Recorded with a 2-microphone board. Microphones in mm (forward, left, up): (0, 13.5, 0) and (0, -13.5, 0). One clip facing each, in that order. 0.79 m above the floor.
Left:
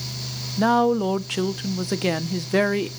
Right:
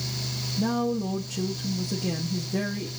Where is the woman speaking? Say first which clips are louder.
Left 8 dB; 55° left (ahead or behind), 0.9 m.